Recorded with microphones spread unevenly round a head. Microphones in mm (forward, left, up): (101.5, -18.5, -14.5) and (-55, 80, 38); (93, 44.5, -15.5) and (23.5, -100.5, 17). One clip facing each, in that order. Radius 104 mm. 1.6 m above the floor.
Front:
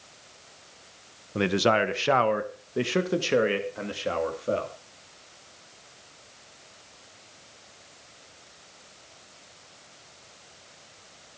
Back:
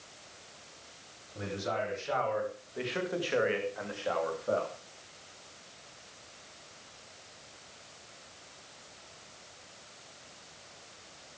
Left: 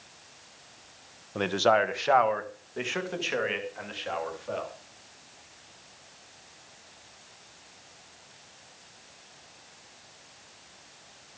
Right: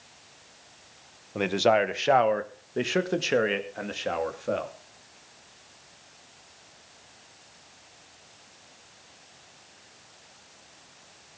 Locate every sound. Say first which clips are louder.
1.4 s a man speaking: front 12 dB, right 2 dB; 35° right, 1.4 m; by 4.7 s 90° right, 3.5 m